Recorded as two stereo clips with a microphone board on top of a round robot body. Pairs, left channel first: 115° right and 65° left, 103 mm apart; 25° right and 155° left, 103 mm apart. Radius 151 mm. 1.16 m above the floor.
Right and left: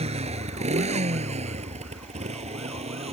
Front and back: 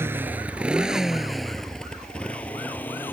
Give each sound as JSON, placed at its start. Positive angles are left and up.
{"t": 0.0, "sound": "a motorcycle", "azimuth_deg": 90}